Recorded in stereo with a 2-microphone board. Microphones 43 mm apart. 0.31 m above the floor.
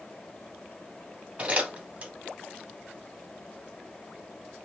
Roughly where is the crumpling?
Right.